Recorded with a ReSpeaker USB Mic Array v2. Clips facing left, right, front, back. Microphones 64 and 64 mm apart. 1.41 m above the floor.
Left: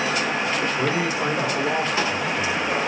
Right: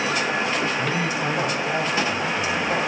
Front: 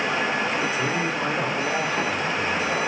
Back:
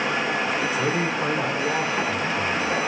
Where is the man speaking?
110° left, 3 m.